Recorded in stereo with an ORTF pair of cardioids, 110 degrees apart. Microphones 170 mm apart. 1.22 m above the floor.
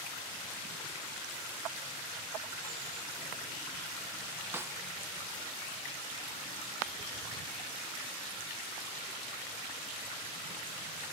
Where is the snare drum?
15° right.